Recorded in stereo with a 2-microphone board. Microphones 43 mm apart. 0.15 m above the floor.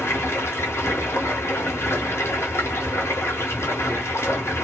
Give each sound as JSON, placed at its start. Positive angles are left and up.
{"t": 0.0, "sound": "running water", "side_deg": 85, "distance_m": 0.8}